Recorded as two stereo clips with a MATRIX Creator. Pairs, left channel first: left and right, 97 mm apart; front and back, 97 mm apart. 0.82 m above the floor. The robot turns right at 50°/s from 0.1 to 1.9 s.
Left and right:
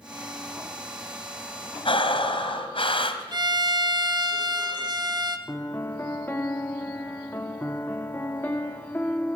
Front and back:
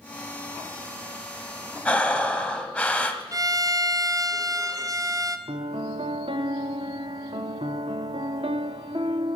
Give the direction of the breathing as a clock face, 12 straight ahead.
9 o'clock.